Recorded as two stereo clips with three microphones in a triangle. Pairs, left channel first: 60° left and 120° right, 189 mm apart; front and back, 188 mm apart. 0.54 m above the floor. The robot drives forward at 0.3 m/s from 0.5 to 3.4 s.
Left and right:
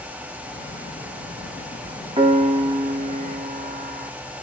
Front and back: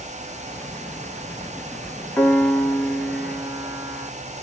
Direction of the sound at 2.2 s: 70° right.